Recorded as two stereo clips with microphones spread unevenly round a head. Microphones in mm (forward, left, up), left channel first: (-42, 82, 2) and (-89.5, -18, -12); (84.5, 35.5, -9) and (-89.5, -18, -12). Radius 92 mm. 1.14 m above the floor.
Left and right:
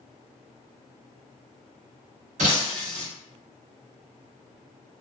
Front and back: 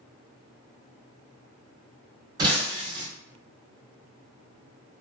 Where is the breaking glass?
95° right, 0.9 m.